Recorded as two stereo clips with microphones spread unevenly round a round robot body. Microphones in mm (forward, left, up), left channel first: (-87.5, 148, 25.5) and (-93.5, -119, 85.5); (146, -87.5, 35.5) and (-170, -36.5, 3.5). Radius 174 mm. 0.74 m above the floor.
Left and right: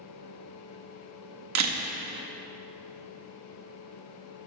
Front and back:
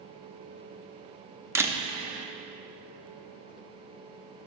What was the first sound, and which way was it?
A camera shutter, 110° right.